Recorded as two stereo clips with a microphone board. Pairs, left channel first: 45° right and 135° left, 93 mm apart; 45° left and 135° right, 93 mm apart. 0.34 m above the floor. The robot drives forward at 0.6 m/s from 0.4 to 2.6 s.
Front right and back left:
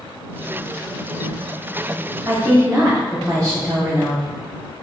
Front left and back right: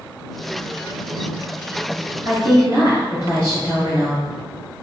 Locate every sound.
2.2 s a woman speaking: 175° right, 1.7 m